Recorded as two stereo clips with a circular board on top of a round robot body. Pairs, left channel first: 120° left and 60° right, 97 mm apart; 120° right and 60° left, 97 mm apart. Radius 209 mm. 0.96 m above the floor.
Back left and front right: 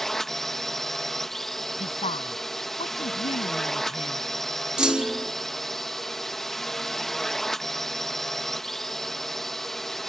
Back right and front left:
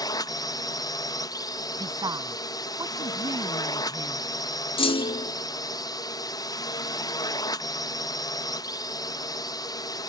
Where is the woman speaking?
110° left.